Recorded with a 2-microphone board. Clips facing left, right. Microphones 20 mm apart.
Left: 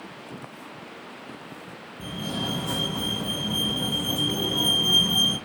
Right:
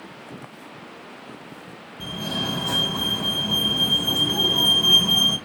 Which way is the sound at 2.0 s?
50° right (ahead or behind).